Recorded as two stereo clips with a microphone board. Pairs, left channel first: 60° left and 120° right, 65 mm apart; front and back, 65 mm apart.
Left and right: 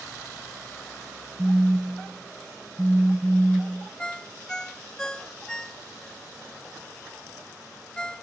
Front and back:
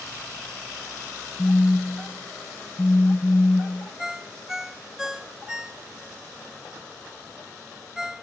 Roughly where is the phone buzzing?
Ahead right.